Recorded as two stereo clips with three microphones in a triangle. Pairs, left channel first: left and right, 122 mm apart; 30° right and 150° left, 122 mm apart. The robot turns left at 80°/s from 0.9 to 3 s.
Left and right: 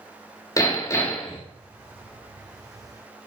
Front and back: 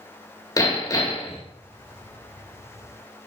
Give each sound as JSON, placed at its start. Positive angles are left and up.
{"t": 0.6, "sound": "hammering", "azimuth_deg": 30, "distance_m": 2.0}